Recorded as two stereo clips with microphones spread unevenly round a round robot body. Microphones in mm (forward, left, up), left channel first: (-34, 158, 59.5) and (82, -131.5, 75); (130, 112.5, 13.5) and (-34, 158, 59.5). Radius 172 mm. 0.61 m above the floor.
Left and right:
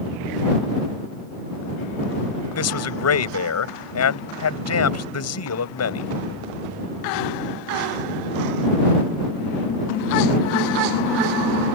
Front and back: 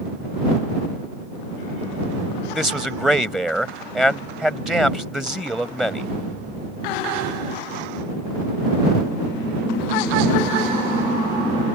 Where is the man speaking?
75° left.